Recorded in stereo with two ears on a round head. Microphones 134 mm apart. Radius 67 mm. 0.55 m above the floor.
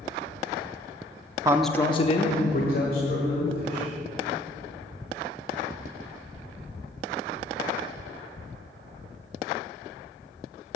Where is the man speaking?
25° right (ahead or behind), 0.6 m; by 3.9 s 70° left (ahead or behind), 3 m.